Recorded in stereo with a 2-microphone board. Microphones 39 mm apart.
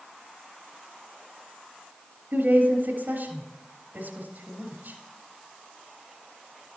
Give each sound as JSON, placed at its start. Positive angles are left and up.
{"t": 2.3, "sound": "a woman speaking", "side_deg": -60, "distance_m": 2.5}